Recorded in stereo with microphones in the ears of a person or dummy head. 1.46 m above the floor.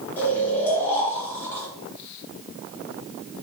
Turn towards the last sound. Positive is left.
turn(degrees=10)  # may be behind; listen again after turning